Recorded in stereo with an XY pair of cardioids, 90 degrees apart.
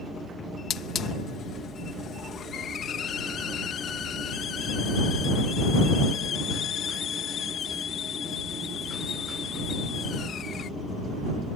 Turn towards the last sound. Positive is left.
turn(degrees=70)